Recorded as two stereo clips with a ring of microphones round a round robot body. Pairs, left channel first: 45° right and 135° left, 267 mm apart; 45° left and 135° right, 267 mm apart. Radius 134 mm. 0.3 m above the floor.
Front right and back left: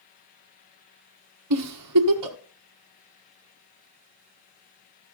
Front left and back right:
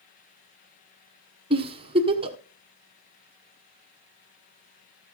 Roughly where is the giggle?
Behind left.